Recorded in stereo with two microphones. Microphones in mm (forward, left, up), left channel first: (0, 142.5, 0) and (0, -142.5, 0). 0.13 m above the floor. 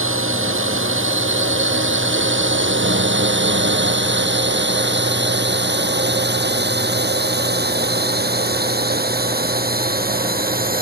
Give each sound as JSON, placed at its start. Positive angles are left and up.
{"t": 0.0, "sound": "a drone", "side_deg": -45}